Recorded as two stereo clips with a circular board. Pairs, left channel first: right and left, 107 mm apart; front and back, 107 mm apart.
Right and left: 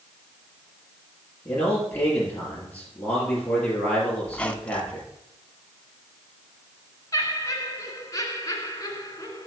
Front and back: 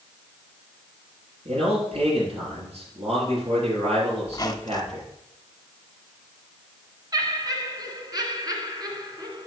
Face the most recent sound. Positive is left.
turn(degrees=-140)